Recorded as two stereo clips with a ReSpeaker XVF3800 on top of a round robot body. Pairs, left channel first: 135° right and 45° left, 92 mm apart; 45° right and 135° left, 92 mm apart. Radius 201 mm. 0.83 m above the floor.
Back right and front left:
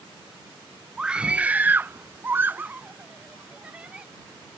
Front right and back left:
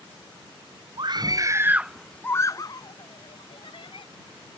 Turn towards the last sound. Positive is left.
turn(degrees=-35)